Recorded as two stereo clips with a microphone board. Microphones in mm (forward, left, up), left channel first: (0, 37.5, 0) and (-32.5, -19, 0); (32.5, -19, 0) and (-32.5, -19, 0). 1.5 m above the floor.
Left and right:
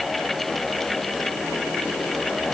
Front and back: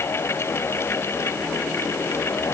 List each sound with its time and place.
Only background noise.